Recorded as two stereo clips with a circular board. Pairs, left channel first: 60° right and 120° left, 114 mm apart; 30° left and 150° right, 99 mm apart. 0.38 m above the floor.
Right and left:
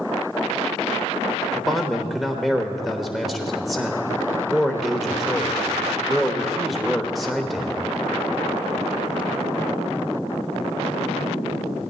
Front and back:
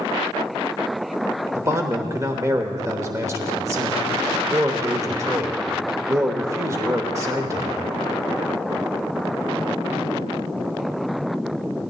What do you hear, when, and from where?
1.6 s a man speaking: 150° right, 1.0 m